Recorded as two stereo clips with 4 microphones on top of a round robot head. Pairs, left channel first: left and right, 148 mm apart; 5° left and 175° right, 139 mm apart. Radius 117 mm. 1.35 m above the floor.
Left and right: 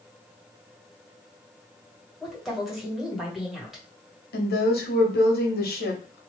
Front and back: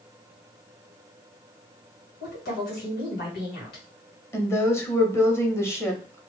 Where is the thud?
No thud in this recording.